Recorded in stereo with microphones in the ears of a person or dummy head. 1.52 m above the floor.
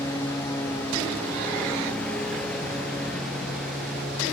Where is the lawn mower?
20° left (ahead or behind); by 4.3 s 5° left (ahead or behind).